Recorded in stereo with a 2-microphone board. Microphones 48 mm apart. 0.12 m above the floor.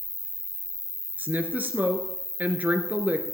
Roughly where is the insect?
Centre.